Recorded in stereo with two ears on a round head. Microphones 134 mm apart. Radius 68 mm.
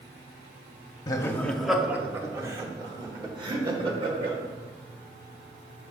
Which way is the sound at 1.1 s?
25° left (ahead or behind).